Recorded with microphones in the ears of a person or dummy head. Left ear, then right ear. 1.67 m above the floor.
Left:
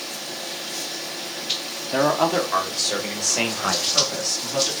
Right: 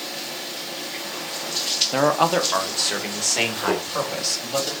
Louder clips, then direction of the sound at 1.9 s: Left 1 dB; 10° right (ahead or behind).